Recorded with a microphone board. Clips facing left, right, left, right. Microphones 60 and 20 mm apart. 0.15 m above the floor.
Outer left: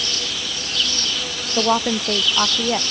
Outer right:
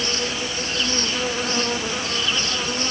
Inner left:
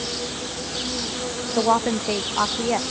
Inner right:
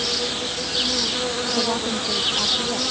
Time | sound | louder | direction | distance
0.0 | an insect | outer right 3 dB, inner right 5 dB | 35° right (ahead or behind) | ?
1.6 | a woman speaking | outer left 6 dB, inner left 7 dB | 85° left | ?